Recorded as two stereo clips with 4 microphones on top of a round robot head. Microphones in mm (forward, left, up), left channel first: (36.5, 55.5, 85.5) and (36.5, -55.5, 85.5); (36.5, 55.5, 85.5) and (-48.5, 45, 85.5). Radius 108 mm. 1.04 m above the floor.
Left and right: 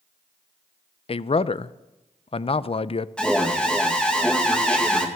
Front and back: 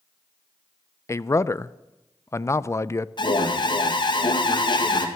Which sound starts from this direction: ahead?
An alarm, at 3.2 s.